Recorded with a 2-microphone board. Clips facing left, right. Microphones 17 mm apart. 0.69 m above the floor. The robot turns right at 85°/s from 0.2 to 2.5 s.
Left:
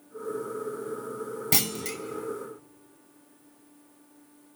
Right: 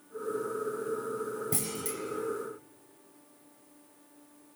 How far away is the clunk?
About 1.1 m.